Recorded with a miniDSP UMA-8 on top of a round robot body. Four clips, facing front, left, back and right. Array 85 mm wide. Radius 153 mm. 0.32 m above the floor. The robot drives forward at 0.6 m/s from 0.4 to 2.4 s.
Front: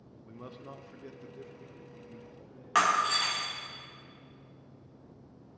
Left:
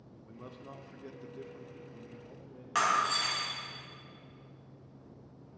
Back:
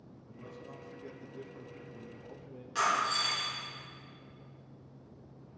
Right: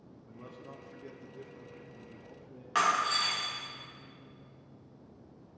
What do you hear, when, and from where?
0.3 s a man speaking: 5° left, 0.9 m; by 2.6 s 175° left, 1.1 m
2.8 s breaking glass: 10° right, 1.9 m